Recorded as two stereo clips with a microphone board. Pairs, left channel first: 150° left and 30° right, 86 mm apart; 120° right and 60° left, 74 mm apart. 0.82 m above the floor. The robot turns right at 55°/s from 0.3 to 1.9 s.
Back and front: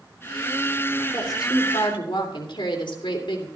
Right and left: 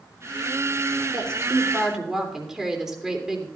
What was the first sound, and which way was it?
A woman speaking, 100° left.